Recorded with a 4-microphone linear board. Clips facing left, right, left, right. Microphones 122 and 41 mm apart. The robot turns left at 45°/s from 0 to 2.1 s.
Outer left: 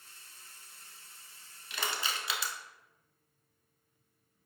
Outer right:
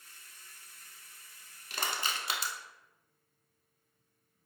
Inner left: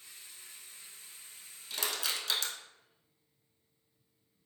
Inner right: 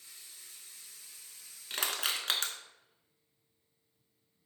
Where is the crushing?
40° right (ahead or behind), 0.7 m; by 2.5 s 45° right (ahead or behind), 0.7 m.